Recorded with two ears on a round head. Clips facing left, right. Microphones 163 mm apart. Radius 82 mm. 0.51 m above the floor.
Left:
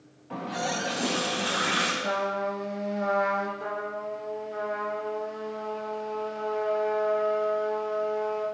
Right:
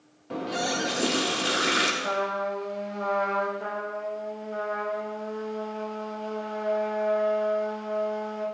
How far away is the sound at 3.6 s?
About 2.5 m.